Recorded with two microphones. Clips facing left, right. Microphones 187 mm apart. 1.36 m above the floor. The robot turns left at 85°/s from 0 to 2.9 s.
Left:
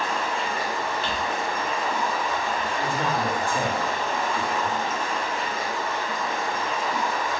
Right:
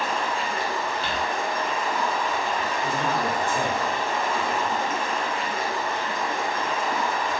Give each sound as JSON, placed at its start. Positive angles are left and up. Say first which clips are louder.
{"t": 0.0, "sound": "running water", "louder": "even", "azimuth_deg": -165, "distance_m": 1.8}
{"t": 1.0, "sound": "crumpling", "louder": "left 1 dB", "side_deg": -35, "distance_m": 1.3}
{"t": 2.8, "sound": "a man speaking", "louder": "left 1 dB", "side_deg": 20, "distance_m": 1.2}